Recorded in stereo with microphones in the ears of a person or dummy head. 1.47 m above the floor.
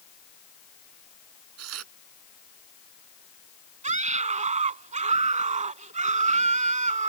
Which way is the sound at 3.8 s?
40° right (ahead or behind).